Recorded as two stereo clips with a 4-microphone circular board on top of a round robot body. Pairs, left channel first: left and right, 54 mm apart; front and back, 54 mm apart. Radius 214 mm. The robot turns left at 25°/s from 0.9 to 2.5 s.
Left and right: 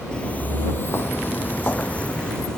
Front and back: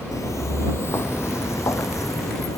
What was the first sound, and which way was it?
Footsteps, 15° left.